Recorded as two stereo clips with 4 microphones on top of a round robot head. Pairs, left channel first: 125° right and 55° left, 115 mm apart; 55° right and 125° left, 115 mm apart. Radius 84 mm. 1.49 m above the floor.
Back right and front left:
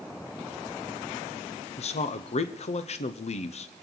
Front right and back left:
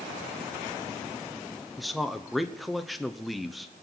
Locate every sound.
1.8 s a man speaking: 145° right, 0.9 m